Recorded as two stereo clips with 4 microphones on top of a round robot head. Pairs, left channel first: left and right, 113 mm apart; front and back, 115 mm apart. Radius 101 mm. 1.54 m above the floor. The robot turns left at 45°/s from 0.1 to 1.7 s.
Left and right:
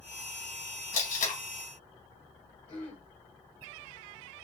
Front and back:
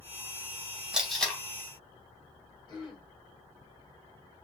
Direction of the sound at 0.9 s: 100° left.